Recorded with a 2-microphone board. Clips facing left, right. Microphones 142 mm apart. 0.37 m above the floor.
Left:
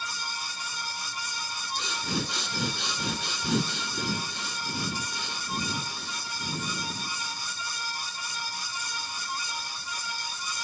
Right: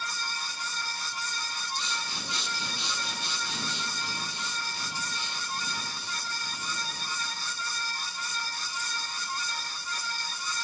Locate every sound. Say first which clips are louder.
1.8 s breathing: left 6 dB; 70° left (ahead or behind), 1.2 m